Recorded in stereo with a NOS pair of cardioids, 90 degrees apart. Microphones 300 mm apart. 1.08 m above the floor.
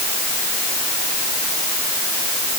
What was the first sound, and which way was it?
Only background noise.